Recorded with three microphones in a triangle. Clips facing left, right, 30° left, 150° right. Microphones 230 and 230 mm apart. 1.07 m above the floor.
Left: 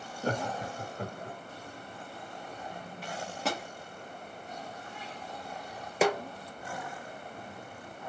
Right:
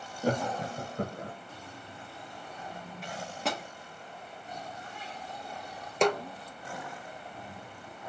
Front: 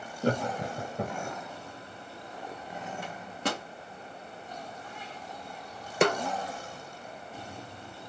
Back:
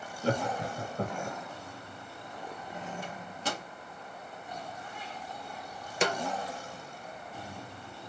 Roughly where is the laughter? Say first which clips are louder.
Right 3 dB, front 2 dB; ahead.